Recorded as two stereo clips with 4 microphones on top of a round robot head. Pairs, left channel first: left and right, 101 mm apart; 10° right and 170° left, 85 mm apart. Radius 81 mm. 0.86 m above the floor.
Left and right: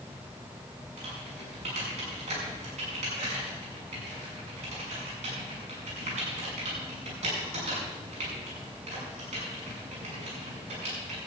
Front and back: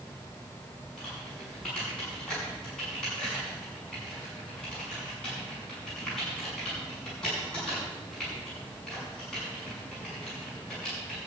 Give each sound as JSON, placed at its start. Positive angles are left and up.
{"t": 1.0, "sound": "typing on a keyboard", "azimuth_deg": -95, "distance_m": 6.0}